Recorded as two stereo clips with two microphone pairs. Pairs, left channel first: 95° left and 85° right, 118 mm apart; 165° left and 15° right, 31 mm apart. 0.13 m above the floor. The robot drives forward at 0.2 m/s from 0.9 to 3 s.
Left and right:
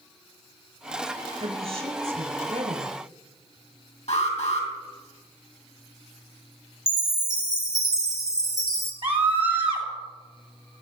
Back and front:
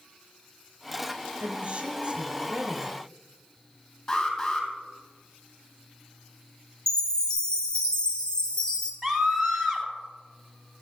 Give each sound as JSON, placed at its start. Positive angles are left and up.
{"t": 1.4, "sound": "a woman speaking", "azimuth_deg": -60, "distance_m": 4.0}
{"t": 4.1, "sound": "an alarm", "azimuth_deg": 115, "distance_m": 3.0}
{"t": 6.9, "sound": "a chime", "azimuth_deg": -135, "distance_m": 1.5}
{"t": 9.0, "sound": "a scream", "azimuth_deg": -115, "distance_m": 2.5}